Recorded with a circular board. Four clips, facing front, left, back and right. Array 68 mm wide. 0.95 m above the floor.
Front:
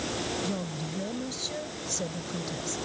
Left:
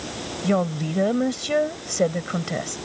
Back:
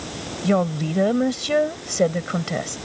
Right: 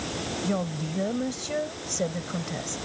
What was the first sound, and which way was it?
A woman speaking, 150° left.